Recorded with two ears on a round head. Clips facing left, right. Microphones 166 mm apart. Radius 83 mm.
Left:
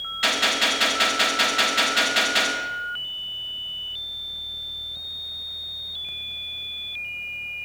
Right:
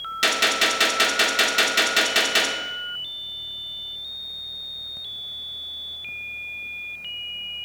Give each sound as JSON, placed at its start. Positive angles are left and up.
{"t": 0.2, "sound": "a gunshot", "side_deg": -55, "distance_m": 1.5}